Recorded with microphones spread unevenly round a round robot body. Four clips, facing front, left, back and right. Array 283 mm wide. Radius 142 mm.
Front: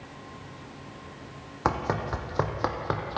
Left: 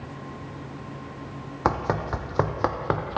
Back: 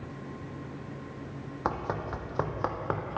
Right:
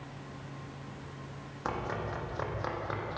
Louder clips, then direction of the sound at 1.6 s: Left 10 dB, front 5 dB; 65° left.